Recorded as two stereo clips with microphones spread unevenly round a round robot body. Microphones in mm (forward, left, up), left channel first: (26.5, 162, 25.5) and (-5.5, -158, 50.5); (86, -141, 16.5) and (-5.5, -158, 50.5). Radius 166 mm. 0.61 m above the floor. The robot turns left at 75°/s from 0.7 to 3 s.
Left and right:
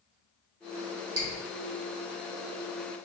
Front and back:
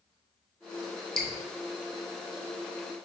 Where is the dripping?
50° right, 1.1 m; by 1.3 s 60° right, 1.1 m.